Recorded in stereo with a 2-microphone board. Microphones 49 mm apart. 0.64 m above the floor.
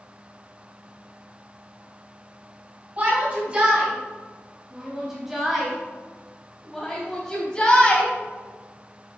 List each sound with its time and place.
3.0 s a shout: 30° right (ahead or behind), 3.5 m; by 8.1 s 20° left (ahead or behind), 3.5 m